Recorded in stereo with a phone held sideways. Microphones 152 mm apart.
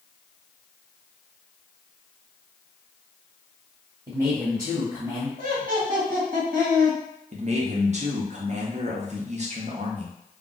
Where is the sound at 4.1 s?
15° right (ahead or behind), 1.0 m.